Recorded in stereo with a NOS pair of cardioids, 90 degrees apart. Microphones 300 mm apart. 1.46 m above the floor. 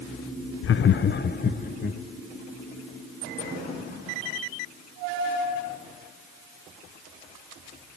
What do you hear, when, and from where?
0.6 s laughter: 45° left, 0.6 m; by 2.0 s 30° left, 2 m